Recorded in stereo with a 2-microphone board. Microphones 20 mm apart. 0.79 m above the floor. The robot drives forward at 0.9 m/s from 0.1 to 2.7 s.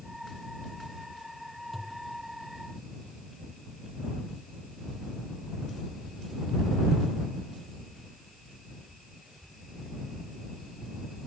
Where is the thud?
5° right (ahead or behind).